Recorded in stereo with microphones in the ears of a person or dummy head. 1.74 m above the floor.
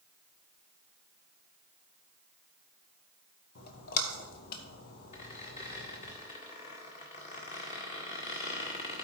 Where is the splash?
50° left (ahead or behind), 1.3 m.